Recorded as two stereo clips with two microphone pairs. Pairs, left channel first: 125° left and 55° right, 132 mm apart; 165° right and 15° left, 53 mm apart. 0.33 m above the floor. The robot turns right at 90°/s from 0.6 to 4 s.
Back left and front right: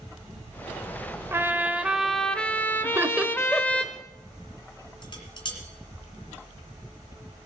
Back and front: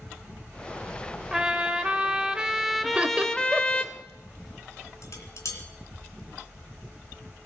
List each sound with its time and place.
1.3 s a trumpet: 35° right, 0.9 m; by 3.8 s 165° right, 0.9 m
2.8 s laughter: 15° right, 0.9 m; by 3.9 s 80° left, 0.9 m
5.0 s dishes clattering: 175° left, 2.5 m